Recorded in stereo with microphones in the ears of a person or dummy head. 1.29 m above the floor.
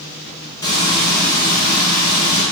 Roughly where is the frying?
Left.